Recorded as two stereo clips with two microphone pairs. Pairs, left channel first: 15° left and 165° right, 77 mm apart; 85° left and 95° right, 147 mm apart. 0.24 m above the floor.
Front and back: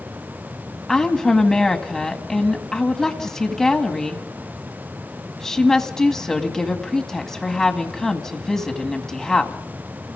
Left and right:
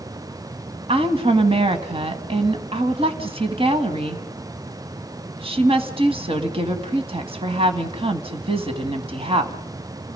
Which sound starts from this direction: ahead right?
A woman speaking, at 0.9 s.